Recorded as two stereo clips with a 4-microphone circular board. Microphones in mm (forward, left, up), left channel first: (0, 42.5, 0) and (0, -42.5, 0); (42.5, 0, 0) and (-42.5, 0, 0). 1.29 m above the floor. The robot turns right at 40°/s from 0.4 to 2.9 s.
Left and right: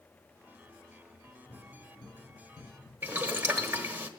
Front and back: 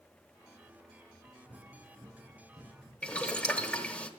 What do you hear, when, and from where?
1.2 s running footsteps: 100° left, 7.5 m; by 2.9 s 160° left, 9 m
3.0 s boiling: 60° right, 1.1 m